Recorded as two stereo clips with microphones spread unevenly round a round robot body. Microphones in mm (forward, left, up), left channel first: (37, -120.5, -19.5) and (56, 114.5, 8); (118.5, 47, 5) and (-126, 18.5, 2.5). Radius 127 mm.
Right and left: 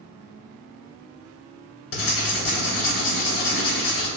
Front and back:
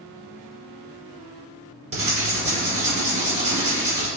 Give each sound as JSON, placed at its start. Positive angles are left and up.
{"t": 1.9, "sound": "writing", "azimuth_deg": -115, "distance_m": 1.2}